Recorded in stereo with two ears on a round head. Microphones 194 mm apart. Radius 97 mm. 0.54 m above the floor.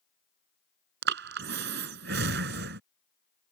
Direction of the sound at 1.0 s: 55° right (ahead or behind).